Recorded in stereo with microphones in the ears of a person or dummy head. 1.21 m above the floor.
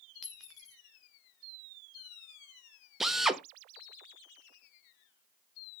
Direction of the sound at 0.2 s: 5° left (ahead or behind).